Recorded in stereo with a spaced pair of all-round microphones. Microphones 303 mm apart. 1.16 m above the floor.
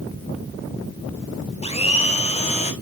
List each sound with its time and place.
1.6 s a blender: 20° left (ahead or behind), 1.0 m